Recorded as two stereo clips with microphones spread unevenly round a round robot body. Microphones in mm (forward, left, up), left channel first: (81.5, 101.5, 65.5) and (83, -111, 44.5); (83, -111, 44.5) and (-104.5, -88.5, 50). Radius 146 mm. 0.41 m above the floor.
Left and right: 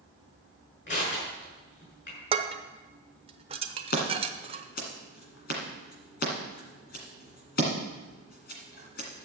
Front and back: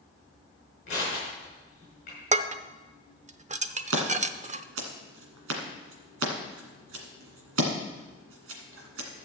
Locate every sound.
0.9 s crushing: 55° left, 6.5 m
2.3 s dishes clattering: 140° right, 0.7 m
3.9 s scissors: 150° left, 1.8 m